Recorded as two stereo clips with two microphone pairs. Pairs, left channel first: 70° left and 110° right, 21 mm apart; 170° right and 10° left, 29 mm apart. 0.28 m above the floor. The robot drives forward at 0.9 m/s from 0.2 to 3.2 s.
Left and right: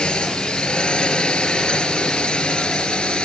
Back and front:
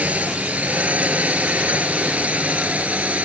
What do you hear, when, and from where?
0.0 s a drone: 40° left